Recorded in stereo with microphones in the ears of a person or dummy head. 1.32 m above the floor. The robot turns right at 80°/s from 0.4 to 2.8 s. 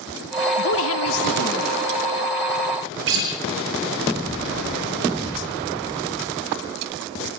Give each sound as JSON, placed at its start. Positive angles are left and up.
{"t": 0.6, "sound": "a woman speaking", "azimuth_deg": 55, "distance_m": 1.1}
{"t": 3.1, "sound": "a guitar", "side_deg": -70, "distance_m": 4.5}